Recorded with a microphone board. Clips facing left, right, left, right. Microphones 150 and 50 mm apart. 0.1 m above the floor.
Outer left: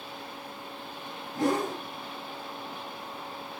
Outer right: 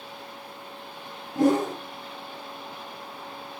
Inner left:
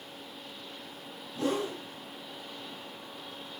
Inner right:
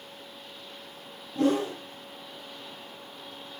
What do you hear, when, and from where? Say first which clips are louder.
1.4 s a whoosh: outer right 6 dB, inner right 6 dB; 70° right (ahead or behind), 3.5 m